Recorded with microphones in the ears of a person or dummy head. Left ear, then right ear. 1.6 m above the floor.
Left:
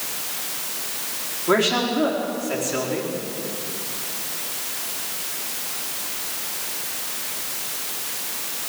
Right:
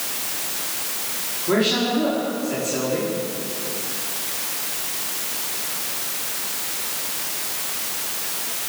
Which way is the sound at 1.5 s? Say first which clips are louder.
Left 1 dB; 45° left (ahead or behind).